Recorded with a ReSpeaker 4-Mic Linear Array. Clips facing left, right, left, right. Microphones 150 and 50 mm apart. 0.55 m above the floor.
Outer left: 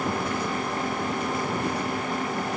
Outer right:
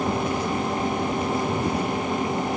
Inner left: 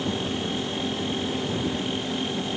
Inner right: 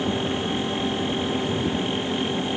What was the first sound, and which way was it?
Only background noise.